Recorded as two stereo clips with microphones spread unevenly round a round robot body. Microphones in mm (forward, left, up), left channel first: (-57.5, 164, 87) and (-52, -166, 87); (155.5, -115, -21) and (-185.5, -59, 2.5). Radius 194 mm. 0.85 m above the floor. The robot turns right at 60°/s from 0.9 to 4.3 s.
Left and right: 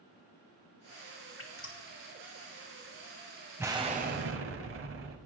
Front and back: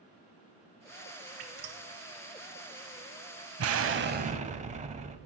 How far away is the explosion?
About 0.9 m.